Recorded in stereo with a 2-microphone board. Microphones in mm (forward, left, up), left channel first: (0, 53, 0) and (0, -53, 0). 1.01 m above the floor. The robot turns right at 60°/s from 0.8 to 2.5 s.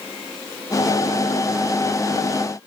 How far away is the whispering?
No whispering in this recording.